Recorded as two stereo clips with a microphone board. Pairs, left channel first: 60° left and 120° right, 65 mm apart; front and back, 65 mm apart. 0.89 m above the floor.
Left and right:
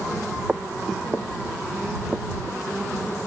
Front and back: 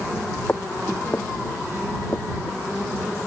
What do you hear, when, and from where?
0.5 s footsteps: 55° right; by 2.6 s 45° right